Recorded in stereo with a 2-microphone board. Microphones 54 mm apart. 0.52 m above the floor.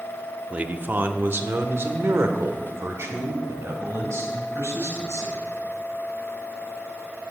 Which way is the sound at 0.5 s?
25° right (ahead or behind).